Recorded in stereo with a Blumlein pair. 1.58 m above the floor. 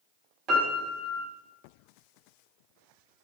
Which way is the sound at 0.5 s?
35° right.